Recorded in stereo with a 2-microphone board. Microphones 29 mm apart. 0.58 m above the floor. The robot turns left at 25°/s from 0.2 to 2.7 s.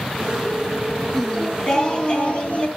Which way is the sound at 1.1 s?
175° left.